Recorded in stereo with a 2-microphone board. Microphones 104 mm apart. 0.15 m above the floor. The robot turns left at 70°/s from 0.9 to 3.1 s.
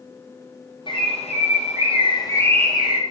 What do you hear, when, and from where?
0.9 s a bird: 135° left, 2.5 m; by 3.0 s 15° right, 2.5 m